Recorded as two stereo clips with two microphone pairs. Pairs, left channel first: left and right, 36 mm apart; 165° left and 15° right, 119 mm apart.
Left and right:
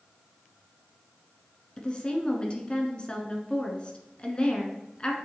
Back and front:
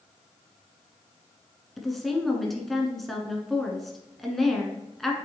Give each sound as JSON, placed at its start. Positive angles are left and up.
{"t": 1.8, "sound": "a woman speaking", "azimuth_deg": 80, "distance_m": 1.3}